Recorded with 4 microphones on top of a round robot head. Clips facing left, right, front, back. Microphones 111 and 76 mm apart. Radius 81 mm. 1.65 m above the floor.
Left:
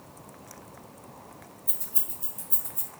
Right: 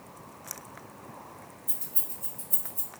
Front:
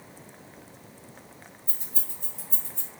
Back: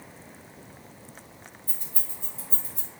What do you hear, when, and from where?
1.7 s keys jangling: 55° left, 1.4 m; by 2.9 s 115° left, 1.0 m